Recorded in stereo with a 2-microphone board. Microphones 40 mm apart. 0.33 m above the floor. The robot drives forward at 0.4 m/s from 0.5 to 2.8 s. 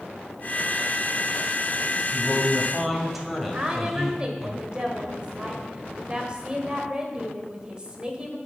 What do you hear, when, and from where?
2.1 s a man speaking: 5° right (ahead or behind), 2 m
3.5 s a woman speaking: 25° right (ahead or behind), 1.4 m